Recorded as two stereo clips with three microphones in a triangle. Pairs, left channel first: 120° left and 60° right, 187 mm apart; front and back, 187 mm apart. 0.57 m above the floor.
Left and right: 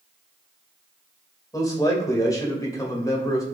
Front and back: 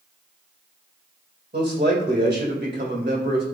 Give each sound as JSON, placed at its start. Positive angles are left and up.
{"t": 1.5, "sound": "a man speaking", "azimuth_deg": -170, "distance_m": 2.5}